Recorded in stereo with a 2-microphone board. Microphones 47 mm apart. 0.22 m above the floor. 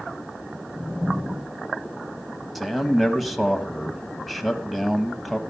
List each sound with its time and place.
2.5 s a man speaking: centre (ahead or behind), 1.1 m